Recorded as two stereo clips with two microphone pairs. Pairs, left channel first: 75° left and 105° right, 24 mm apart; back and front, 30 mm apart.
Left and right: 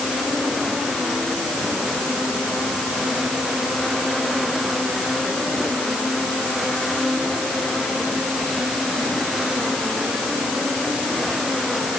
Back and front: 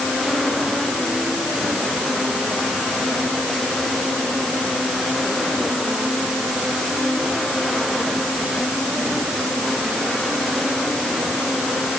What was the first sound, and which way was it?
Only background noise.